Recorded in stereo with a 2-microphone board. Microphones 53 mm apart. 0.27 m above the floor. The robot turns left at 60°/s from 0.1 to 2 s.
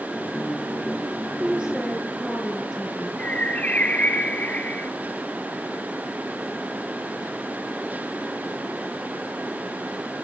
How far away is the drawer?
I don't hear a drawer.